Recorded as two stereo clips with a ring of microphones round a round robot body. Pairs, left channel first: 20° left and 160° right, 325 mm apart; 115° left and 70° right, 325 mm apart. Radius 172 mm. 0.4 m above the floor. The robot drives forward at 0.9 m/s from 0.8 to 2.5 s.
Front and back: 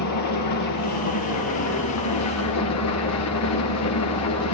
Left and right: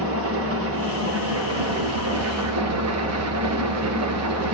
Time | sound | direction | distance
0.0 | an engine running | 15° right | 6 m